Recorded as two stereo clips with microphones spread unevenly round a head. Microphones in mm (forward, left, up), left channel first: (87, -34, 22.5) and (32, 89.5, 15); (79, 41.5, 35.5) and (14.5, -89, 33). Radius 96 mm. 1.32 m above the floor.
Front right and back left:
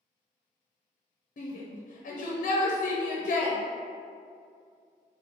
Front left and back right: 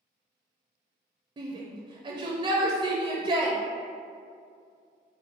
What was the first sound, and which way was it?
A shout, 70° right.